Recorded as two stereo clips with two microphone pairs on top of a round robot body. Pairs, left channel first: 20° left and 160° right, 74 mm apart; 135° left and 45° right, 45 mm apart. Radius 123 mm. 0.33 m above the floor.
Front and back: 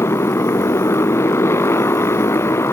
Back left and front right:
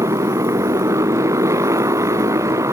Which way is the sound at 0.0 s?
40° right.